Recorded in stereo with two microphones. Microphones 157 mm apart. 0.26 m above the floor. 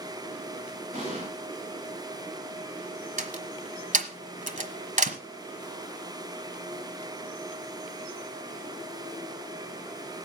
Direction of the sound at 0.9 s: 45° right (ahead or behind).